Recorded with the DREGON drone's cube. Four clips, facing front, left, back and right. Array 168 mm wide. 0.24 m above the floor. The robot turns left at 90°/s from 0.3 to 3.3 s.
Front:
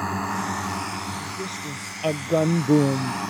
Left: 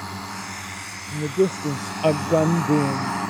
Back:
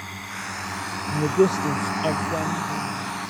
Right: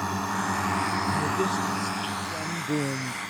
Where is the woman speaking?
175° left; by 3.2 s 15° right.